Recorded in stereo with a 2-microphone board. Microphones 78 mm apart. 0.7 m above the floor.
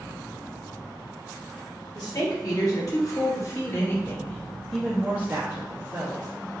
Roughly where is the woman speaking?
Left.